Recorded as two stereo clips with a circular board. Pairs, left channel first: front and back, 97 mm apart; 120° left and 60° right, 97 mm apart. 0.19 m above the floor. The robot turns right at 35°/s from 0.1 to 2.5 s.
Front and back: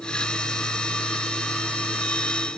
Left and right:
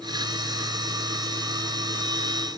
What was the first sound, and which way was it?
Only background noise.